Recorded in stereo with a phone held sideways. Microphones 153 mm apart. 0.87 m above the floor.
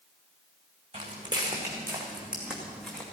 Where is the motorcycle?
No motorcycle in this recording.